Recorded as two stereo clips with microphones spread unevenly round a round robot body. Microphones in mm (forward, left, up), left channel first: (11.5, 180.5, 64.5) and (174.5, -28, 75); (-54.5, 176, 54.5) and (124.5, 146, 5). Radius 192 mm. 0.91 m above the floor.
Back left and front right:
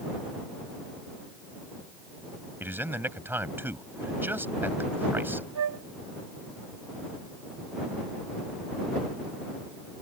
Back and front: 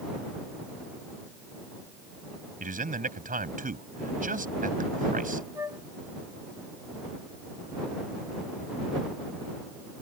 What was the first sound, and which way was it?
A man speaking, 30° left.